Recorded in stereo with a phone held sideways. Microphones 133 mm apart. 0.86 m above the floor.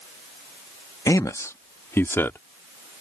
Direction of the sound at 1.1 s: 25° left (ahead or behind).